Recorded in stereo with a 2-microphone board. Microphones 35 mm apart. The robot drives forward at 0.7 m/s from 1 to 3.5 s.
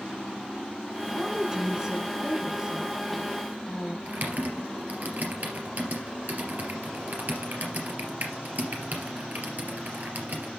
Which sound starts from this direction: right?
Typing on a keyboard, at 4.1 s.